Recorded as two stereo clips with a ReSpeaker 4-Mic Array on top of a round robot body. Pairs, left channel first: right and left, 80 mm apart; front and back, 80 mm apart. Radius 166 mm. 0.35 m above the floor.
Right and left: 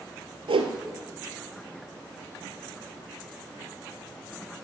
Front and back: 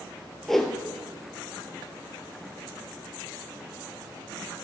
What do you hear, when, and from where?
0.5 s a whoosh: 85° left, 1.6 m